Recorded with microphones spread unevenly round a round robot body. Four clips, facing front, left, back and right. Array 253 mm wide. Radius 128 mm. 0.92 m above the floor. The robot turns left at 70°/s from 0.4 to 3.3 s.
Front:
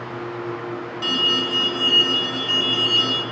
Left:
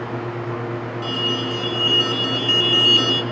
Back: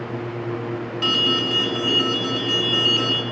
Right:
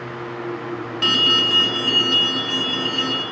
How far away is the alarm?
About 1.0 m.